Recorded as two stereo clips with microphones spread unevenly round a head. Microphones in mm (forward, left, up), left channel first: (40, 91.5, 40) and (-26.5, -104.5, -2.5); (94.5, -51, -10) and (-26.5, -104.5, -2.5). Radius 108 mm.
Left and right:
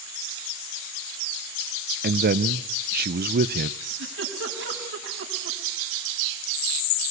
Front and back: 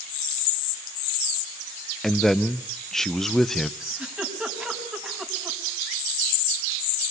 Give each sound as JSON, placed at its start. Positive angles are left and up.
{"t": 2.0, "sound": "a man speaking", "azimuth_deg": -65, "distance_m": 0.9}
{"t": 3.8, "sound": "a giggle", "azimuth_deg": -70, "distance_m": 5.5}